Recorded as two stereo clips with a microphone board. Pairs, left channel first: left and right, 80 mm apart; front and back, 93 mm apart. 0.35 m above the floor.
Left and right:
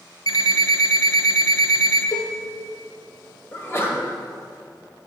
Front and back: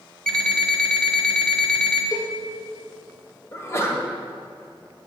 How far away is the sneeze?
About 1.5 m.